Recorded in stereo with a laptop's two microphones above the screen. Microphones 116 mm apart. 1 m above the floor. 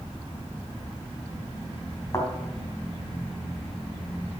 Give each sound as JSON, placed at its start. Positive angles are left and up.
{"t": 2.1, "sound": "a thud", "side_deg": 25, "distance_m": 3.5}